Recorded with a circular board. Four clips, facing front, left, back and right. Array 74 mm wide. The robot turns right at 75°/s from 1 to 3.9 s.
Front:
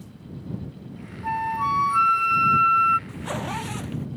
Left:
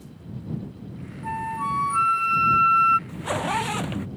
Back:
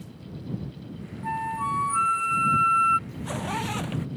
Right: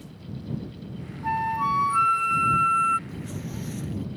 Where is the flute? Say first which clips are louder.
Right 3 dB, front 4 dB; 60° right; by 3.0 s 75° left.